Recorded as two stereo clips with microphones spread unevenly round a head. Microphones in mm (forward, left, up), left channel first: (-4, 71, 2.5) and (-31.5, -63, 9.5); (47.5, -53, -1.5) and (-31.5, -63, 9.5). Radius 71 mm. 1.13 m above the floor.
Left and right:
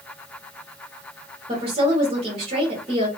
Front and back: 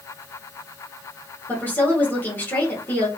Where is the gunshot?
I don't hear a gunshot.